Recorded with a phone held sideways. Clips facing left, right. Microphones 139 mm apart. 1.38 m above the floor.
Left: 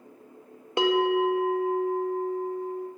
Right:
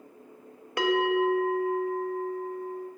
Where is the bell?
25° left (ahead or behind), 0.9 m.